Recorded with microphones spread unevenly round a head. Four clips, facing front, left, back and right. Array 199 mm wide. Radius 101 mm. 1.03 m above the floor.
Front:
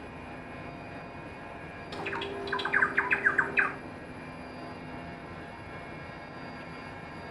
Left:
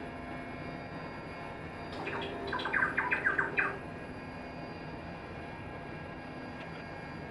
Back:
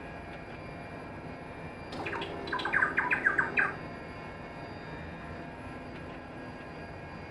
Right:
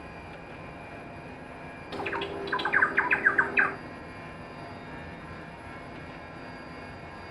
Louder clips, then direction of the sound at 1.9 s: Right 6 dB, front 2 dB; 90° right.